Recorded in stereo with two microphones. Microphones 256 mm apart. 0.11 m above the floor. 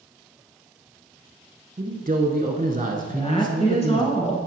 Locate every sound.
1.8 s a man speaking: 30° right (ahead or behind), 1.2 m
3.1 s a woman speaking: 25° left (ahead or behind), 1.5 m